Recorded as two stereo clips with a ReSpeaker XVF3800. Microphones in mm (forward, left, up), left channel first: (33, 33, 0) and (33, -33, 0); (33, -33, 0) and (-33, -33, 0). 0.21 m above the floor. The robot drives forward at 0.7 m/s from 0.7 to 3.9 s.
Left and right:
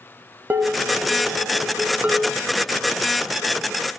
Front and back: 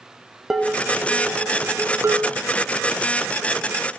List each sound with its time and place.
0.5 s dishes clattering: 105° right, 1.0 m; by 2.3 s 160° right, 1.6 m